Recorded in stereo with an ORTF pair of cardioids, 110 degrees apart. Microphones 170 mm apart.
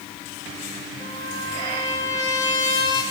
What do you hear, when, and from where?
1.0 s a trumpet: 25° left, 7.5 m